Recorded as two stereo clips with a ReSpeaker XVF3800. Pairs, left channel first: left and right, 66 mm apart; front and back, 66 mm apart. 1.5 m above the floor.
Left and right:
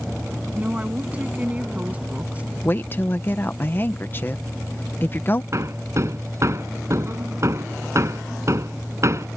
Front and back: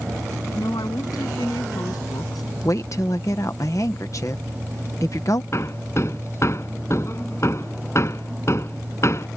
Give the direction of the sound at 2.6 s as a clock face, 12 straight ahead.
11 o'clock.